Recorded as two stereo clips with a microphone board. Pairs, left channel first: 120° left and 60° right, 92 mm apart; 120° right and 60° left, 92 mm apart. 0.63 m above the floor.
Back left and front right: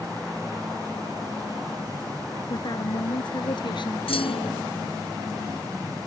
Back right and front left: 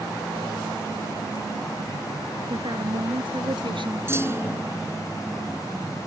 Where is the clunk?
120° left.